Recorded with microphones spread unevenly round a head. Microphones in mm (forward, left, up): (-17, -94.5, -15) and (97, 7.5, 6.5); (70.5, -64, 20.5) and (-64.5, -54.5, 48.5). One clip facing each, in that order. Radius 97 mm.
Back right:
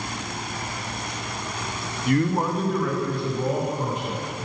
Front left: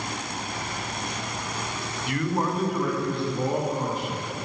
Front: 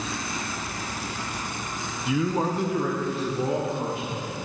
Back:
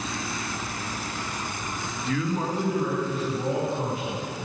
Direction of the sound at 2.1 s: 90° right.